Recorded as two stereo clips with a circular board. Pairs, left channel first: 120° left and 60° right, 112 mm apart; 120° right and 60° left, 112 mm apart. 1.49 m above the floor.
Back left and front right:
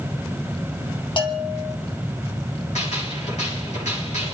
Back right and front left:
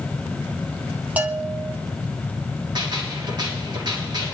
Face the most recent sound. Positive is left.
turn(degrees=110)